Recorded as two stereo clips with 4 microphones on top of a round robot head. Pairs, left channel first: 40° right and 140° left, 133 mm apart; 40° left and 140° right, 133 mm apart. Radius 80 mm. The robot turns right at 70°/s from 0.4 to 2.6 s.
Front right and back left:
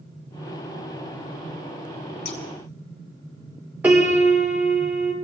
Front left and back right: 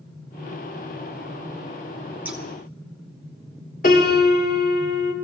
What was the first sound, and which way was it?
Scissors, 65° right.